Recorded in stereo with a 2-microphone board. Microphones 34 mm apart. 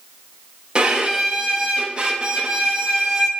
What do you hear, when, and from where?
0.8 s a violin: 25° right (ahead or behind), 0.8 m